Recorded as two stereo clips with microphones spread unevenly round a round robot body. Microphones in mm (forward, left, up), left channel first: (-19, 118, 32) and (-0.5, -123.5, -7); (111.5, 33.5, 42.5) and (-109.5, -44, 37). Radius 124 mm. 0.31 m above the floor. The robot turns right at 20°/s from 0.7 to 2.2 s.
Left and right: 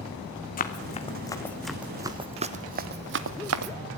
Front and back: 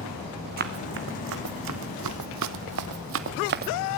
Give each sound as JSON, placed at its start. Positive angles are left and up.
{"t": 0.6, "sound": "running footsteps", "azimuth_deg": 150, "distance_m": 1.7}